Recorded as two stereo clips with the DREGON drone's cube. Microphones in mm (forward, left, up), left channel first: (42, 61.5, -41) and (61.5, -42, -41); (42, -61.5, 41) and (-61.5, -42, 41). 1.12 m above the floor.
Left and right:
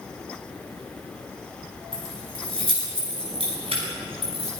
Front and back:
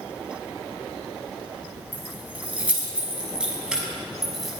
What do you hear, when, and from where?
1.9 s keys jangling: 115° right, 6.5 m; by 4.6 s 100° right, 6 m